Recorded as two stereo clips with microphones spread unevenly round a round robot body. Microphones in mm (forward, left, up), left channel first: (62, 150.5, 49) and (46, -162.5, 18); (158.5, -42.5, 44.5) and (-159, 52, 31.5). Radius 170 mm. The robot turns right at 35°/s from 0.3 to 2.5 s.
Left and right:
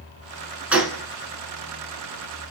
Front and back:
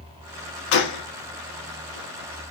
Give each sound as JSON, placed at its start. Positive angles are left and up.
{"t": 0.7, "sound": "a gunshot", "azimuth_deg": -5, "distance_m": 0.7}